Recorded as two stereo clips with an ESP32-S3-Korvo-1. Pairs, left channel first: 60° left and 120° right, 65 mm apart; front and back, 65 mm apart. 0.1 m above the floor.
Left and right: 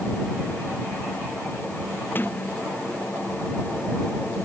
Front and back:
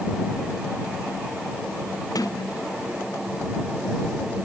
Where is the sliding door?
5° left.